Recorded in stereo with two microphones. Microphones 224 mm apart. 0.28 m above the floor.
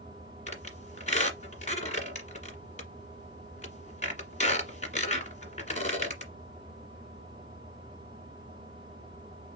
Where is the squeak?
30° left (ahead or behind), 1.6 m.